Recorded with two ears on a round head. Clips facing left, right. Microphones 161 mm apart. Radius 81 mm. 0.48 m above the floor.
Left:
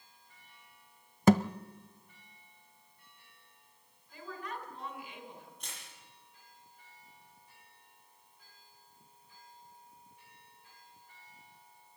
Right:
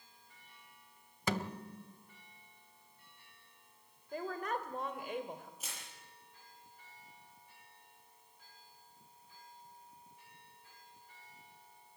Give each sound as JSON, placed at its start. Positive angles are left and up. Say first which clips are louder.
{"t": 1.3, "sound": "a thud", "louder": "left 13 dB", "side_deg": 40, "distance_m": 0.6}
{"t": 4.1, "sound": "a woman speaking", "louder": "right 5 dB", "side_deg": -40, "distance_m": 2.0}
{"t": 5.6, "sound": "crushing", "louder": "right 1 dB", "side_deg": -5, "distance_m": 8.0}